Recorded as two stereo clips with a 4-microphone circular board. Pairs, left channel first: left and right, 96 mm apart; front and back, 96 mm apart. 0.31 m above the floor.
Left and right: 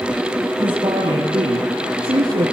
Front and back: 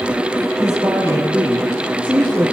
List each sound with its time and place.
0.6 s a woman speaking: 115° right, 6 m; by 2.5 s 110° right, 5 m